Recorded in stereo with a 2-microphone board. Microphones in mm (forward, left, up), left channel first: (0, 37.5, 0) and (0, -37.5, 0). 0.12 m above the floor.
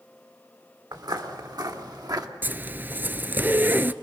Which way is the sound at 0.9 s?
70° right (ahead or behind).